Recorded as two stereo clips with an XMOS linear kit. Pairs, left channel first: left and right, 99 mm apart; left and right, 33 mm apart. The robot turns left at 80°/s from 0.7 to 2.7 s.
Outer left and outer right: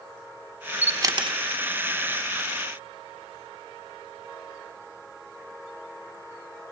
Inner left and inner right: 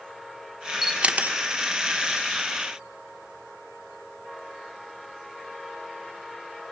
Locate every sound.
0.8 s a camera shutter: 15° right (ahead or behind), 0.9 m; by 1.4 s 60° right (ahead or behind), 0.9 m